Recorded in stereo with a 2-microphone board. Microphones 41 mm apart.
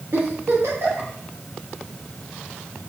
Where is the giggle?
85° right, 8 m.